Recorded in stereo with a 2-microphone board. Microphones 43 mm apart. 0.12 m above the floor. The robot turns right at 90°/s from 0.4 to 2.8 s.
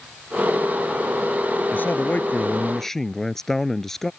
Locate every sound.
1.7 s a man speaking: 70° left; by 4.1 s 170° left